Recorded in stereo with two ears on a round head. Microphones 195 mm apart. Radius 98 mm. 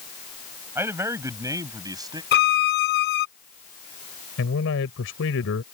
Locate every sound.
0.8 s a man speaking: 10° right (ahead or behind); by 2.2 s 20° right (ahead or behind)
2.3 s a violin: 50° left (ahead or behind)
4.4 s a man speaking: 65° left (ahead or behind)